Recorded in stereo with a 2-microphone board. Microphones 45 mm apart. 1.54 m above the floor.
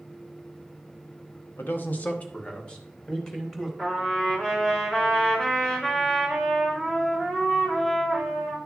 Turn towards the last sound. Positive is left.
turn(degrees=20)  # may be behind; listen again after turning